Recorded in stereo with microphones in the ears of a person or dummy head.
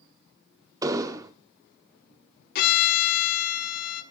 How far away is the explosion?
About 0.7 m.